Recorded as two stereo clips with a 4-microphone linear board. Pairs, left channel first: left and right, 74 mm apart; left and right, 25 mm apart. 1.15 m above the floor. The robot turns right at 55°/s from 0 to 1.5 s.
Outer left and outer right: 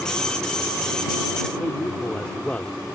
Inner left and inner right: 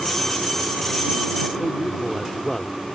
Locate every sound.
1.6 s a man speaking: 15° left (ahead or behind)